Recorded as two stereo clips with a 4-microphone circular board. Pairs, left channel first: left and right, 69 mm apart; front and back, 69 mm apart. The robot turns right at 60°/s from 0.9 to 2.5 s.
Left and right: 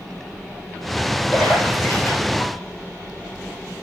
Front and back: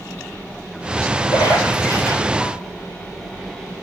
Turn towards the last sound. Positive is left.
turn(degrees=75)